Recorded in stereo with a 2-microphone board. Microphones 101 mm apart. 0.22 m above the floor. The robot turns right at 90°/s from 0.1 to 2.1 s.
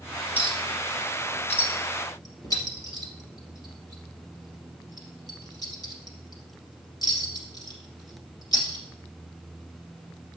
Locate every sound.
0.4 s a clink: 15° right (ahead or behind), 2.5 m; by 8.8 s 40° left (ahead or behind), 2.5 m